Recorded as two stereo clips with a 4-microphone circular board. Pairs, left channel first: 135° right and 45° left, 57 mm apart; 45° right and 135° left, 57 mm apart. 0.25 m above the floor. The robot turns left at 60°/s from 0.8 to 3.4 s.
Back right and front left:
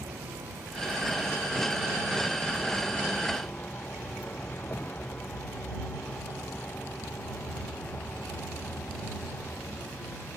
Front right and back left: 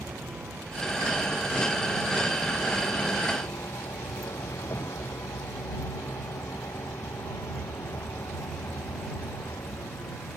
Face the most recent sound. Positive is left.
turn(degrees=-75)